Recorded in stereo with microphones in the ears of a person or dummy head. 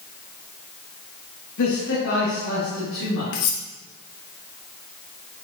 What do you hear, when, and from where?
1.6 s a man speaking: 65° left (ahead or behind), 1.5 m; by 3.2 s 70° left (ahead or behind), 2.5 m
3.3 s cutlery clinking: 60° left (ahead or behind), 1.0 m